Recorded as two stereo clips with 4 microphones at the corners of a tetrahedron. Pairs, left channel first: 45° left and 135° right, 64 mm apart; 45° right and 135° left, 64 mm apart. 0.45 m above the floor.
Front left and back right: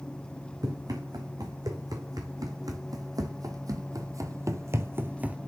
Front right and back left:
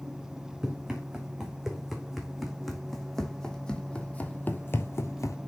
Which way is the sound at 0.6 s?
145° right.